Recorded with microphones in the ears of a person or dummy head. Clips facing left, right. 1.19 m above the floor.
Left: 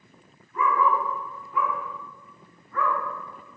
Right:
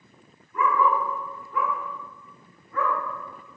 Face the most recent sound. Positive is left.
turn(degrees=-15)  # may be behind; listen again after turning